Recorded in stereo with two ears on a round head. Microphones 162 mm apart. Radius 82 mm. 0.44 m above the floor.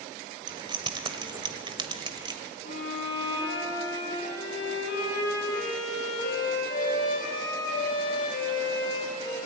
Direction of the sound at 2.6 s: 50° left (ahead or behind).